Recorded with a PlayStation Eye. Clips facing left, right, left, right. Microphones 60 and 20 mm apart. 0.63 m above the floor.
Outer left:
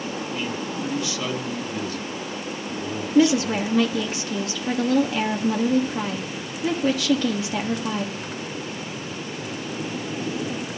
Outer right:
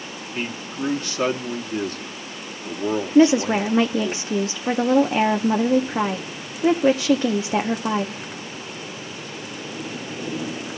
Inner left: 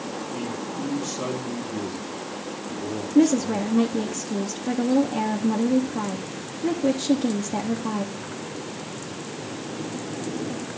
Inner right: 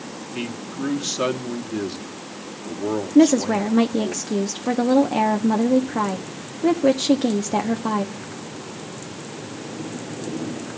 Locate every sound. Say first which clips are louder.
0.3 s a man speaking: outer left 1 dB, inner right 5 dB; 40° right (ahead or behind), 1.1 m
3.1 s a woman speaking: outer right 3 dB, inner right 3 dB; 25° right (ahead or behind), 0.6 m